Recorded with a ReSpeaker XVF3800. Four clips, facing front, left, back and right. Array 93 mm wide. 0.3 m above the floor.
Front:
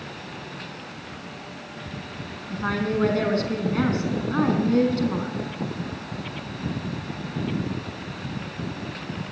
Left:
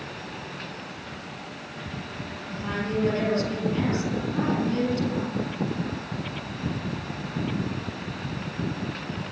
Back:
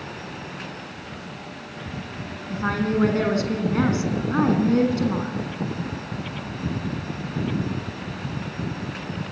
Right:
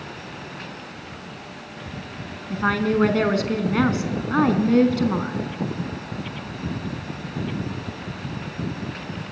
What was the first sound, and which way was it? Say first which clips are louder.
A woman speaking: right 8 dB, back 2 dB; 100° right.